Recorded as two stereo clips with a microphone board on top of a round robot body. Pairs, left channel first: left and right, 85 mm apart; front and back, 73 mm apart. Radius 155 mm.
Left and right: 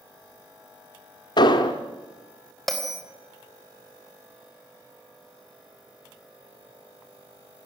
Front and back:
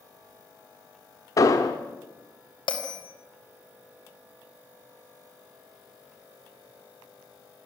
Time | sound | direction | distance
1.4 | an explosion | 55° left | 1.1 m
2.7 | a bell | straight ahead | 3.5 m